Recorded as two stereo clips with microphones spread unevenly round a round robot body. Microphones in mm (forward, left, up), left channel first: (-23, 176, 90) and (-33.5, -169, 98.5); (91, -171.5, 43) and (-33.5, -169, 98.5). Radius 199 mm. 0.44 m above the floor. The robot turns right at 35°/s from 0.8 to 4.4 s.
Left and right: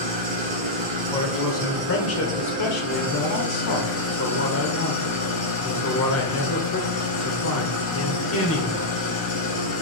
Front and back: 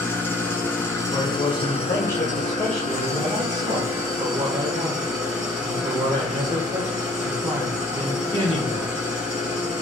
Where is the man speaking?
15° left, 1.9 m; by 8.9 s 130° left, 1.9 m.